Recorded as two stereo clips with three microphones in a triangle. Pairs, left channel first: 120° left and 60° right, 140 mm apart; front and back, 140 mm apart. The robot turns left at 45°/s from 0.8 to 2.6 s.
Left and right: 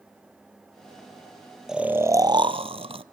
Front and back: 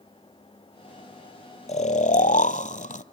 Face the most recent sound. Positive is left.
turn(degrees=-15)